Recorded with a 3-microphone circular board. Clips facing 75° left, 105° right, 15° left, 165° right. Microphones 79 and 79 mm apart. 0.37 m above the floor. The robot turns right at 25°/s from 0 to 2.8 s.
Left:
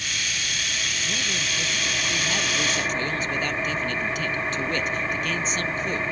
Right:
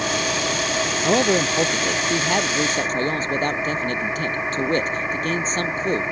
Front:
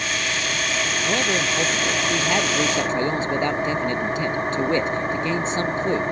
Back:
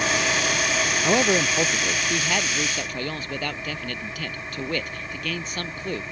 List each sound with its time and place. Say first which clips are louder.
0.0 s an engine running: right 9 dB, back 3 dB; 100° right; by 6.1 s 30° right
1.0 s a man speaking: right 15 dB, back 3 dB; 100° right; by 6.0 s 55° right